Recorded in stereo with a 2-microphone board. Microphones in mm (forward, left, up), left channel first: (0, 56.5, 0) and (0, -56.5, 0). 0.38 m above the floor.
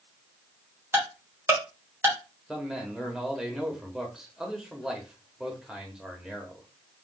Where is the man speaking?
5° right (ahead or behind), 1.3 m.